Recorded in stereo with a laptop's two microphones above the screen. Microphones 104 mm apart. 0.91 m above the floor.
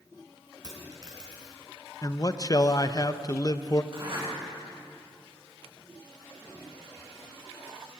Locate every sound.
0.6 s a dropped coin: 40° right (ahead or behind), 4 m
2.0 s a man speaking: 35° left (ahead or behind), 0.7 m
3.9 s a zipper: 50° right (ahead or behind), 7 m